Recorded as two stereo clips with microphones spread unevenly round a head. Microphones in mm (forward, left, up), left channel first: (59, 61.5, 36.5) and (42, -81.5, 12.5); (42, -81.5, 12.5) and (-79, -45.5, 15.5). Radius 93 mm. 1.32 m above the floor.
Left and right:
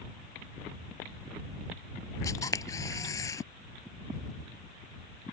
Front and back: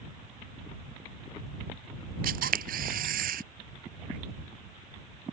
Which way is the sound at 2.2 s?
155° left.